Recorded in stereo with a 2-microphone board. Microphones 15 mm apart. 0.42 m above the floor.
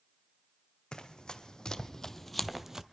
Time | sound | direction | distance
0.9 | running footsteps | 55° left (ahead or behind) | 1.1 m